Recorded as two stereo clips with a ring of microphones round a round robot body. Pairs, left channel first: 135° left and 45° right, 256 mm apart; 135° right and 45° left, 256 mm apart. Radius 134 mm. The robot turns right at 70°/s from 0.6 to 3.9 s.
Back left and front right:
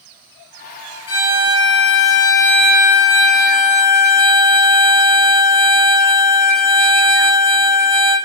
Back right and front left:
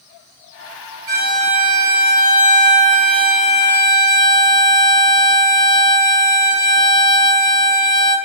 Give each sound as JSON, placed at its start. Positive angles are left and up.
{"t": 1.1, "sound": "a violin", "azimuth_deg": 100, "distance_m": 3.5}